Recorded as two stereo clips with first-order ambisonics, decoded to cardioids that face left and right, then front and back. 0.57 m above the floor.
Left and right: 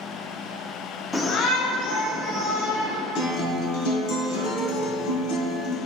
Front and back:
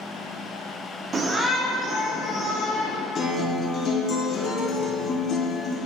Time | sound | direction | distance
1.1 | a shout | 165° left | 0.7 m
3.1 | a guitar | 60° left | 1.5 m